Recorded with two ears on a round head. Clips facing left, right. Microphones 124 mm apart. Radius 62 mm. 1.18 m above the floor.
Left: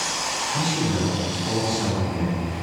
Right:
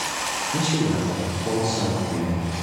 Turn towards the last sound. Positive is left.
turn(degrees=-80)